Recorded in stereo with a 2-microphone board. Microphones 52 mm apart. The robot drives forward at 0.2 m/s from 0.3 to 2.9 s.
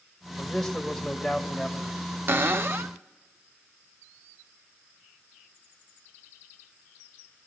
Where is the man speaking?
5° left (ahead or behind), 1.7 m.